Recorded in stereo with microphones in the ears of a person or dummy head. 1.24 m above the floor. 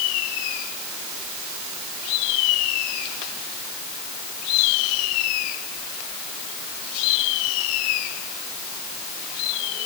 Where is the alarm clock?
I don't hear an alarm clock.